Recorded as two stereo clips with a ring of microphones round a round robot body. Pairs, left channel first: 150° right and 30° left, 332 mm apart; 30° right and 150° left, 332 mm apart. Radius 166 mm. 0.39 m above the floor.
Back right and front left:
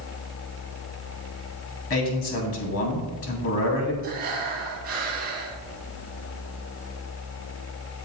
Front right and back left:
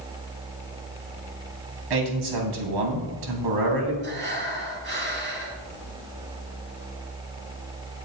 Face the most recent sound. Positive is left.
turn(degrees=95)